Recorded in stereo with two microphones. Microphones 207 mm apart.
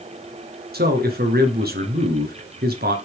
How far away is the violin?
I don't hear a violin.